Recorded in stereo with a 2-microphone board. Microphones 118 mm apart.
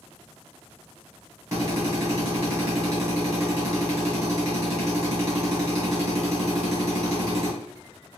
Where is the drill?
25° right (ahead or behind), 1.8 m.